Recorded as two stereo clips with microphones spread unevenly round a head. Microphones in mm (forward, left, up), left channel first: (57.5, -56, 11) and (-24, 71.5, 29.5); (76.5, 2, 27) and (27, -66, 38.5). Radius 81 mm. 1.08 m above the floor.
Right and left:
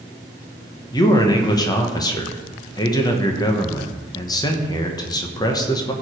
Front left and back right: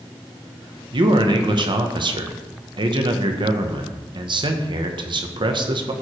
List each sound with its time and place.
0.9 s a man speaking: 115° right, 1.2 m